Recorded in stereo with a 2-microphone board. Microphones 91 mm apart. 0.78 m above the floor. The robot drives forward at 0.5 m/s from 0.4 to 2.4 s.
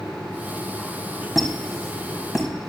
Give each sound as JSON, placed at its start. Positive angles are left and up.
{"t": 1.4, "sound": "a squeak", "side_deg": 0, "distance_m": 2.5}